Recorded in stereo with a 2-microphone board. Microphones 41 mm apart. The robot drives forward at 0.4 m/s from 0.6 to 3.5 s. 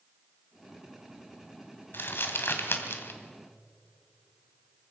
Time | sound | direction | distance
1.9 | crumpling | 65° left (ahead or behind) | 2 m